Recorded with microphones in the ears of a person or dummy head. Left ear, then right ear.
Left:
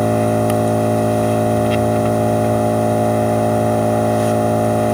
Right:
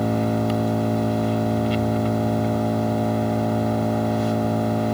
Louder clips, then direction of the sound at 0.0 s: Left 8 dB; 30° left (ahead or behind).